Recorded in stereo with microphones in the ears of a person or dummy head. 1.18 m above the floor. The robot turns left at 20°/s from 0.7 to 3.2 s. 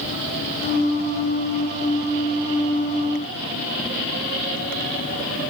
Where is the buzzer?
No buzzer in this recording.